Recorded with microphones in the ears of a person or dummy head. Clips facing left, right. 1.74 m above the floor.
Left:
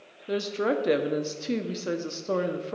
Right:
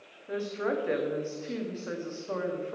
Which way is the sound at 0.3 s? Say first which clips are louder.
Left 4 dB; 50° left (ahead or behind).